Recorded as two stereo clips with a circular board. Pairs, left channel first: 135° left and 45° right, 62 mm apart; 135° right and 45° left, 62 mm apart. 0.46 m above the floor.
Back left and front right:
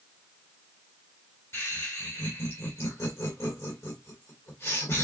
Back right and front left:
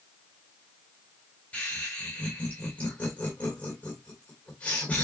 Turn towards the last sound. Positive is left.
turn(degrees=165)